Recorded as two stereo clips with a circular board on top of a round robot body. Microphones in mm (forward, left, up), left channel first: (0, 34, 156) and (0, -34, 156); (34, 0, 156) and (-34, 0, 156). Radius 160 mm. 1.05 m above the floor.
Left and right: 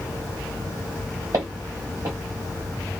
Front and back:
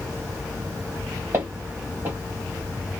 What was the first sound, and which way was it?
Footsteps, 125° right.